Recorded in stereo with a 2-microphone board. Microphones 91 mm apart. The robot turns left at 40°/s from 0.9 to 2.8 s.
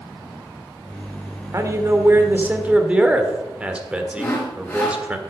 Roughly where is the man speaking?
Right.